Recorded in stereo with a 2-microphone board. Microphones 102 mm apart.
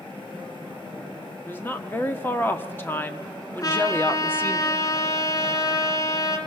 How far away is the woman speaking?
About 1.5 m.